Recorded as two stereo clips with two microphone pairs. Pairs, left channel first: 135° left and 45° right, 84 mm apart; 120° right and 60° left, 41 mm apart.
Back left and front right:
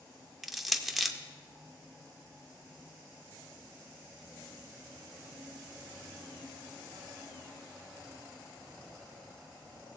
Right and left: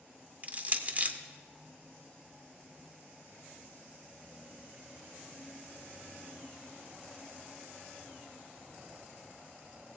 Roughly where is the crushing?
Ahead left.